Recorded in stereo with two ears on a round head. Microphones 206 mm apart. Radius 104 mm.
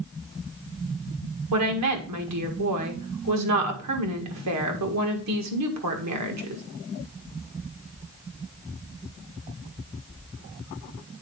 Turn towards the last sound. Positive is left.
turn(degrees=-80)